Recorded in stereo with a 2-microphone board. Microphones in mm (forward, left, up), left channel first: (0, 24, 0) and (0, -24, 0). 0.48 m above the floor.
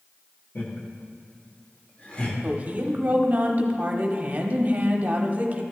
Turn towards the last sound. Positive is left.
turn(degrees=-35)  # may be behind; listen again after turning